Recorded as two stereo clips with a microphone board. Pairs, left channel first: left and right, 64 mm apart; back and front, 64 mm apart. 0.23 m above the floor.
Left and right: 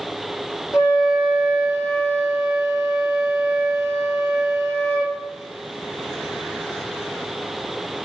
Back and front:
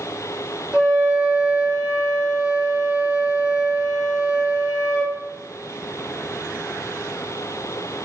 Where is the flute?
75° left, 1.8 m.